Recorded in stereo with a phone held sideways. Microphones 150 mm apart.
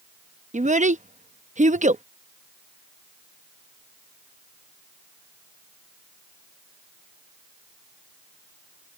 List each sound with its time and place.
0.5 s a child speaking: 55° right (ahead or behind)